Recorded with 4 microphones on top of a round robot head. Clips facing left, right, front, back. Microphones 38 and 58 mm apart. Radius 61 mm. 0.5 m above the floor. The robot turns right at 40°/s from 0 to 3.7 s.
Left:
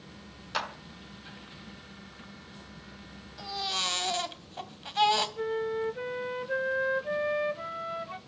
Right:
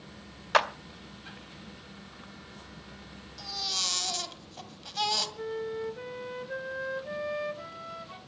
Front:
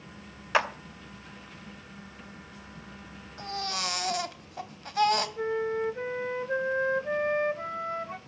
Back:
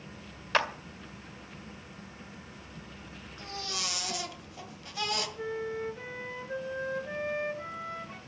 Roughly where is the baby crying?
Ahead.